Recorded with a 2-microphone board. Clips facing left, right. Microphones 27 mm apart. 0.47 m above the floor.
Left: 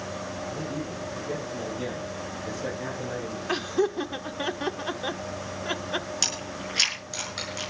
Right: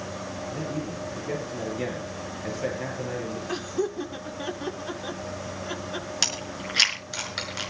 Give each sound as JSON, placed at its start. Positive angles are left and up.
{"t": 0.5, "sound": "a man speaking", "side_deg": -40, "distance_m": 7.5}
{"t": 3.5, "sound": "laughter", "side_deg": 30, "distance_m": 1.1}
{"t": 6.2, "sound": "chewing", "side_deg": -25, "distance_m": 5.5}